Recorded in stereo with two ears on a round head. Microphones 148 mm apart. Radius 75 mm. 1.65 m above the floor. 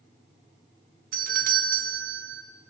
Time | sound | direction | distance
1.1 | a doorbell | 55° right (ahead or behind) | 1.0 m